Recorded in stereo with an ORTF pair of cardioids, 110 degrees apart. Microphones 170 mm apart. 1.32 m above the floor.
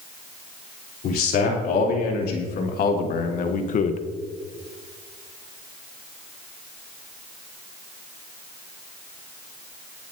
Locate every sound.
1.0 s a man speaking: 65° left, 3.5 m; by 4.0 s 45° left, 0.9 m